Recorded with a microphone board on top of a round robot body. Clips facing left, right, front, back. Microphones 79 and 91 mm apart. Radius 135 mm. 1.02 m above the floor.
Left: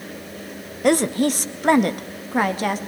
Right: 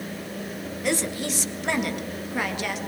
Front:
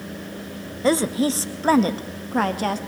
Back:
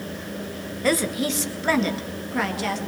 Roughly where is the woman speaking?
Ahead left.